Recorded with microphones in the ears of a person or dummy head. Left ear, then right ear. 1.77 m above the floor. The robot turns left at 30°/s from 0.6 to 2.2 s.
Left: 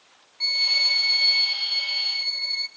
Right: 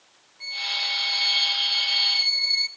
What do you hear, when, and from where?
0.4 s a violin: 40° left, 0.9 m; by 2.7 s 10° right, 0.9 m